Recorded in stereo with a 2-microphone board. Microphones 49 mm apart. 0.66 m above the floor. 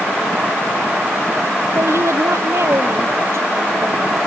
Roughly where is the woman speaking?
Right.